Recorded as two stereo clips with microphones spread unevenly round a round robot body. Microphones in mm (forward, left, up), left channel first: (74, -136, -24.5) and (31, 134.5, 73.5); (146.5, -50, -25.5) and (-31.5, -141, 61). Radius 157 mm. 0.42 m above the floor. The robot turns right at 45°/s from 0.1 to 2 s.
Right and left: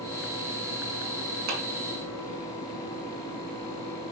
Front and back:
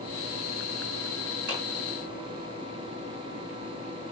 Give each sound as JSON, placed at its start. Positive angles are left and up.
{"t": 1.5, "sound": "a clap", "azimuth_deg": 150, "distance_m": 4.5}